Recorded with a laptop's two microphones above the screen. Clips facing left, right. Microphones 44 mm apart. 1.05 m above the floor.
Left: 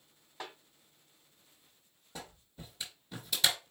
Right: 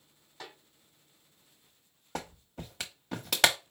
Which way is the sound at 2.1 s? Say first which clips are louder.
Right 8 dB; 70° right (ahead or behind).